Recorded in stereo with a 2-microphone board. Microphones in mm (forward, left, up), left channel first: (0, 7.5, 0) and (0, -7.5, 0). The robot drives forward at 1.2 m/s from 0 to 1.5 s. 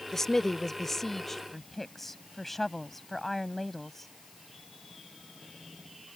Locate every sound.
0.1 s a woman speaking: 30° left (ahead or behind); by 4.1 s 15° left (ahead or behind)